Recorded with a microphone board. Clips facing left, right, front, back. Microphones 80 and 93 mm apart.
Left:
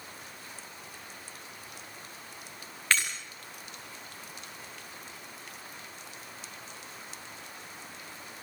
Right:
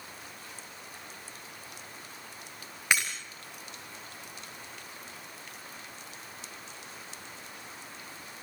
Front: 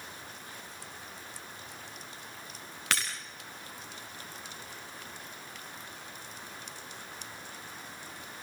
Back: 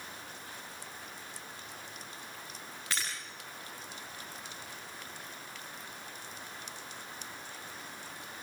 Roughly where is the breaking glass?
Ahead.